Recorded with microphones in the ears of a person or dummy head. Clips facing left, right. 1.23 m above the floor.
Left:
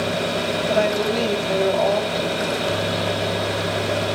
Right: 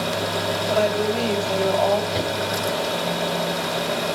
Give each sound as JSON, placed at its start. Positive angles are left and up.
{"t": 0.7, "sound": "a woman speaking", "side_deg": 25, "distance_m": 2.0}
{"t": 2.1, "sound": "a whoosh", "side_deg": 0, "distance_m": 5.0}